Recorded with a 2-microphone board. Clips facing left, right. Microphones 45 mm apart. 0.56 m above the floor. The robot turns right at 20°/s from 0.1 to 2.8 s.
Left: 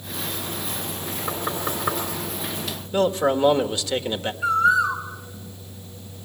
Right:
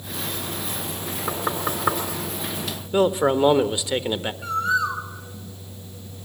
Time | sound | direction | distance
1.3 | knocking | 20° right (ahead or behind) | 4 m
2.9 | a man speaking | 15° right (ahead or behind) | 1.4 m
4.4 | a bird | 10° left (ahead or behind) | 2.5 m